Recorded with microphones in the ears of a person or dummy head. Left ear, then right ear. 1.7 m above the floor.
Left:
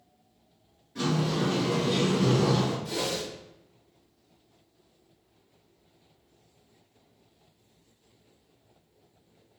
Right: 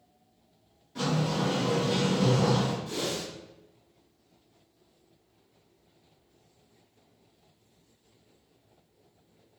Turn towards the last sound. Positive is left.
turn(degrees=45)  # may be behind; listen again after turning